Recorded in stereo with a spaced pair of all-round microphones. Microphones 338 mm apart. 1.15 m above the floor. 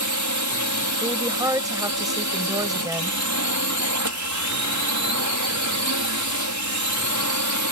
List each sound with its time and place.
0.0 s a drone: 55° right (ahead or behind)
1.0 s a woman speaking: 10° right (ahead or behind)